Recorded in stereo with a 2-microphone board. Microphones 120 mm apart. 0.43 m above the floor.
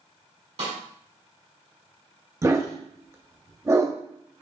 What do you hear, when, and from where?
0.6 s a snare drum: 65° right (ahead or behind), 2 m
2.4 s a dog barking: 25° right (ahead or behind), 0.5 m